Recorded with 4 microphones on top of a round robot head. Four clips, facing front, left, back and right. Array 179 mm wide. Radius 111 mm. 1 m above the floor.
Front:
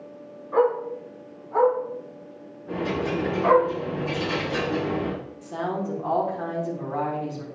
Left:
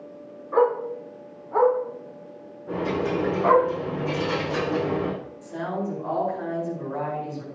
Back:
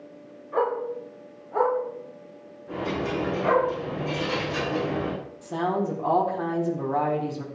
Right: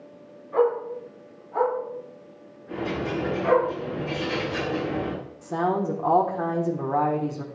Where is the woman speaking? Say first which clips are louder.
Right 6 dB, back 3 dB; 110° right, 3.5 m.